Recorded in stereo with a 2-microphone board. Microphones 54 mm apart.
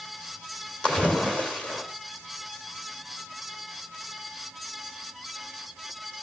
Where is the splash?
20° left (ahead or behind), 2.5 m.